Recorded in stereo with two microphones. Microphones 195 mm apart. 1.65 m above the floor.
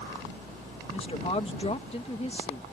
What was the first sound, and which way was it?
A woman speaking, 30° left (ahead or behind).